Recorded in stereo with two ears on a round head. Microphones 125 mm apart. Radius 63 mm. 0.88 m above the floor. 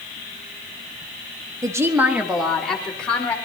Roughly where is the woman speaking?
Right.